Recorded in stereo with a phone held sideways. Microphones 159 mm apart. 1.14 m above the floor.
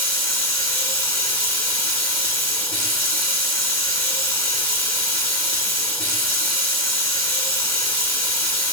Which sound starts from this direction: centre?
Running water, at 0.0 s.